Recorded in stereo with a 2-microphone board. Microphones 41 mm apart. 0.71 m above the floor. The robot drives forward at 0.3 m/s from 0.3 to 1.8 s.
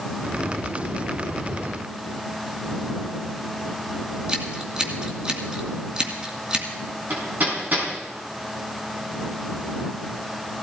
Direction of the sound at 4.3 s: 25° right (ahead or behind).